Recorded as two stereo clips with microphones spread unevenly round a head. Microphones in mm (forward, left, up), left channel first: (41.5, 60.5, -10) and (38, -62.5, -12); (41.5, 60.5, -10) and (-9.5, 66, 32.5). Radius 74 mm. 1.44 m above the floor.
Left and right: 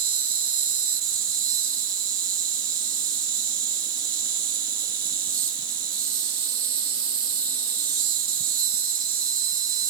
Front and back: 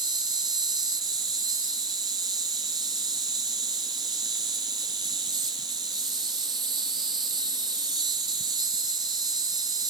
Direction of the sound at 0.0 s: 155° right.